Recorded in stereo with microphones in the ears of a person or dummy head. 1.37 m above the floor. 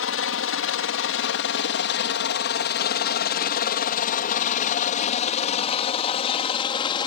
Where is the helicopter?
65° left (ahead or behind); by 7.1 s 25° left (ahead or behind).